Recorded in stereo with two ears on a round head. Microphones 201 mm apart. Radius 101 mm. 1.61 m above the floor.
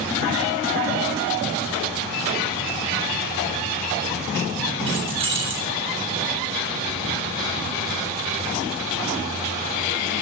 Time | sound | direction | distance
4.9 | keys jangling | 25° right (ahead or behind) | 7.5 m